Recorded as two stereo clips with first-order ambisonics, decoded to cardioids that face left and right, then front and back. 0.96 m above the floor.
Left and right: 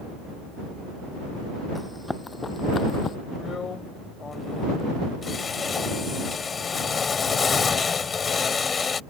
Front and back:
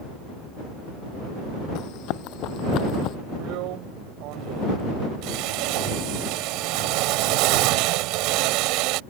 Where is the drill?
160° left.